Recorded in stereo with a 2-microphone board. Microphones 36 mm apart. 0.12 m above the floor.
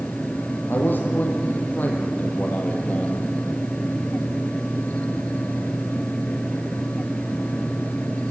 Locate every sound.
0.7 s a man speaking: 60° left (ahead or behind), 4.5 m; by 3.3 s 40° left (ahead or behind), 4 m